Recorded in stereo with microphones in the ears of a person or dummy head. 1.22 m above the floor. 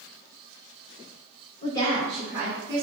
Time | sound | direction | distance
1.6 | a woman speaking | 30° left (ahead or behind) | 1.2 m